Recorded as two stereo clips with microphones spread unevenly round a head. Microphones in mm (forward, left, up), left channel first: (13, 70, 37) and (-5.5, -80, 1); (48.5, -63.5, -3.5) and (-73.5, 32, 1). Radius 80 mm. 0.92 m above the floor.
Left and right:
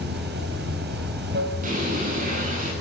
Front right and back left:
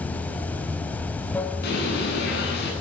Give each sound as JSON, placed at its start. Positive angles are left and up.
{"t": 0.0, "sound": "running water", "azimuth_deg": -120, "distance_m": 3.0}
{"t": 1.6, "sound": "a bird", "azimuth_deg": -60, "distance_m": 9.5}